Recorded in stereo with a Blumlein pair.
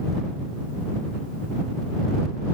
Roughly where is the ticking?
No ticking in this recording.